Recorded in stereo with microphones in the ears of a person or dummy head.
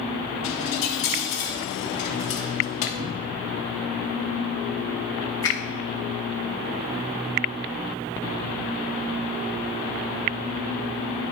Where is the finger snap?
15° left (ahead or behind), 2.5 m.